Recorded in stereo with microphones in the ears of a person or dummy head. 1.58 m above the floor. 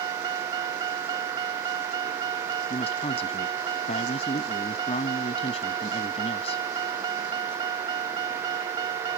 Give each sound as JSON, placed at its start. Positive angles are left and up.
{"t": 0.0, "sound": "a vehicle", "side_deg": -20}
{"t": 2.7, "sound": "a man speaking", "side_deg": 35}